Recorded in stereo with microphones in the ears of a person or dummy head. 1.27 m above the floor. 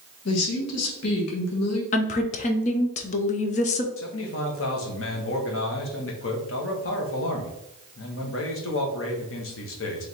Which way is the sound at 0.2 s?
80° left.